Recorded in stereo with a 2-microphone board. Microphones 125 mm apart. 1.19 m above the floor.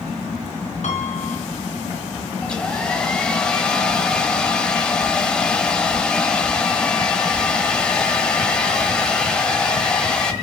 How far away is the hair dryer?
About 1.1 m.